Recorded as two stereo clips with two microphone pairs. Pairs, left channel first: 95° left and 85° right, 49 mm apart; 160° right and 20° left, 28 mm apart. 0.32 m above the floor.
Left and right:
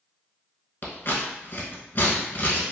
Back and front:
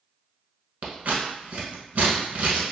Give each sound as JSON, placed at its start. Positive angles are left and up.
{"t": 0.8, "sound": "scissors", "azimuth_deg": 45, "distance_m": 0.9}